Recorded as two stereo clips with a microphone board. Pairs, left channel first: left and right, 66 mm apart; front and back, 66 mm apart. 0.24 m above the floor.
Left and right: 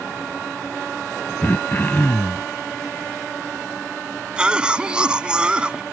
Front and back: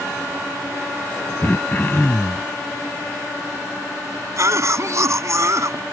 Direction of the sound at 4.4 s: 160° right.